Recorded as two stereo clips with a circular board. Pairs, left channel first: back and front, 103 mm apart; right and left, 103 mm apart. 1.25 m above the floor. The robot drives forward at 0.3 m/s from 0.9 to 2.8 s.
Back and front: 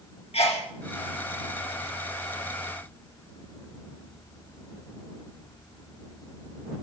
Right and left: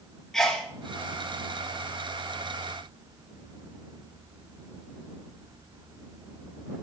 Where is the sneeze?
175° right, 1.8 m.